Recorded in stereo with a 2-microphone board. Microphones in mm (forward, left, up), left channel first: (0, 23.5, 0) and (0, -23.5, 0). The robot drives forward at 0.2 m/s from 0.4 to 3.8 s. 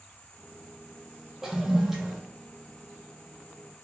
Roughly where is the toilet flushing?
Centre.